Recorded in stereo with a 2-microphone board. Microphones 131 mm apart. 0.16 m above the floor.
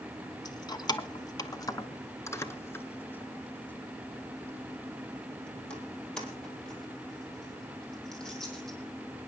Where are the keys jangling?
30° left (ahead or behind), 0.9 m; by 8.8 s centre (ahead or behind), 4.5 m.